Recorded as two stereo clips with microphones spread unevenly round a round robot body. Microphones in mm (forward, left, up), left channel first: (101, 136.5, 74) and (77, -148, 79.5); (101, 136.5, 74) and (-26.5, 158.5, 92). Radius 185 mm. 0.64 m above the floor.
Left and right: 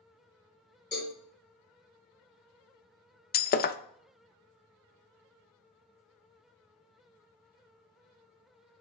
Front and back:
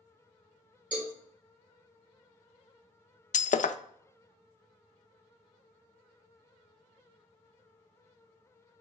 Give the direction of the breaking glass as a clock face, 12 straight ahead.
11 o'clock.